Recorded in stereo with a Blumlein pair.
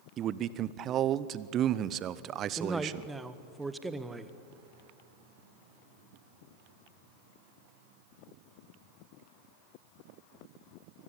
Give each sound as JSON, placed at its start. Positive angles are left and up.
{"t": 0.2, "sound": "a man speaking", "azimuth_deg": -30, "distance_m": 0.8}
{"t": 2.6, "sound": "a man speaking", "azimuth_deg": -10, "distance_m": 1.3}